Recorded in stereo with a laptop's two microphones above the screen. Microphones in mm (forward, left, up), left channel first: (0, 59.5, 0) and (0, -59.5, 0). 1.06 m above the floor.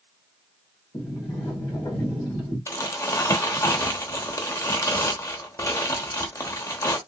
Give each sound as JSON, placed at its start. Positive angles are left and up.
{"t": 0.9, "sound": "a sliding door", "side_deg": 30, "distance_m": 1.4}
{"t": 2.7, "sound": "crumpling", "side_deg": 25, "distance_m": 0.8}